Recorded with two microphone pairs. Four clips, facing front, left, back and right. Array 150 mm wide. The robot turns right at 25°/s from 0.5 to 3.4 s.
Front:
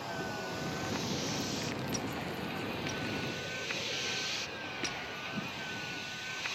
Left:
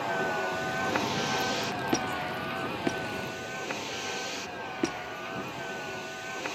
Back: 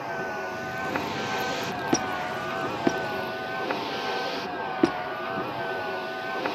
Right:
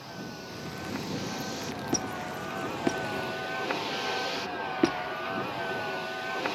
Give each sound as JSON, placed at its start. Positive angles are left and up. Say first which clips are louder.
{"t": 0.0, "sound": "a vehicle", "louder": "left 11 dB, back 7 dB", "azimuth_deg": 120}
{"t": 1.9, "sound": "a squeak", "louder": "left 1 dB, back 11 dB", "azimuth_deg": 160}